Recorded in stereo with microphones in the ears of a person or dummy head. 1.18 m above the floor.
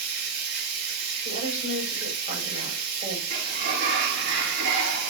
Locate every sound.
0.0 s running water: 85° right, 4 m
1.2 s a woman speaking: 35° right (ahead or behind), 6.5 m
3.3 s a sliding door: 65° right (ahead or behind), 3 m